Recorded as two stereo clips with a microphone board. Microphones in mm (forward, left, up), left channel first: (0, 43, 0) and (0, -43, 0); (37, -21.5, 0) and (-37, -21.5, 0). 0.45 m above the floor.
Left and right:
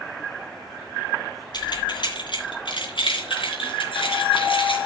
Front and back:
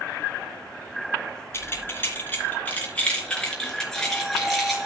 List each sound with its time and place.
1.5 s keys jangling: 55° left, 3.5 m; by 4.9 s 95° left, 4.5 m